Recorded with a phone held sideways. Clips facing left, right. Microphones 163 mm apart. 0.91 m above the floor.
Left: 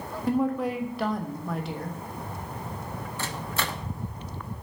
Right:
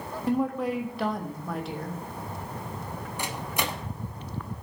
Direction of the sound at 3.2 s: 15° right (ahead or behind).